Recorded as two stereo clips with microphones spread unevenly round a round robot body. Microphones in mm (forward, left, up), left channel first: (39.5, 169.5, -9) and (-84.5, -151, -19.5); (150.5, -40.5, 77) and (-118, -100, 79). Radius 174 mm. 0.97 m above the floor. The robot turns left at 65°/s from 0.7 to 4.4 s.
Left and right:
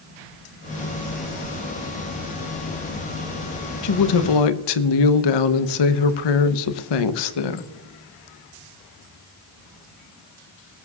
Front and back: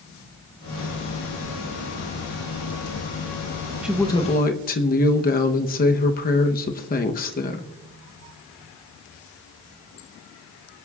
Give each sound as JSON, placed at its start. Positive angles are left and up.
{"t": 3.8, "sound": "a woman speaking", "azimuth_deg": 105, "distance_m": 0.9}